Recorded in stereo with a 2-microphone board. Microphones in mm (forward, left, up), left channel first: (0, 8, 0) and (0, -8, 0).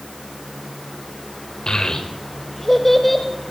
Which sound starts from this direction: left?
A child speaking, at 1.7 s.